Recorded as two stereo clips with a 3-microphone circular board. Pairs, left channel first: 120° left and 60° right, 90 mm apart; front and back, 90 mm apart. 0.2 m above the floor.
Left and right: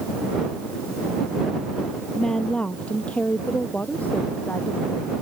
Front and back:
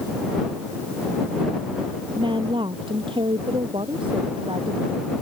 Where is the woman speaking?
160° right; by 5.1 s 170° right.